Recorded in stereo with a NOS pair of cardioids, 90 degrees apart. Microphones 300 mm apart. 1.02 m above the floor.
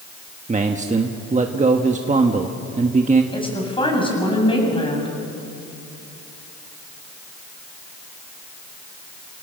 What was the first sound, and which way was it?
A man speaking, 25° right.